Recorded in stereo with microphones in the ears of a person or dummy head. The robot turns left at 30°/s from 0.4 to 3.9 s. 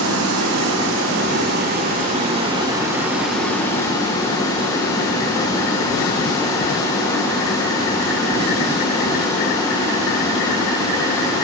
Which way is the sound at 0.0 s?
85° right.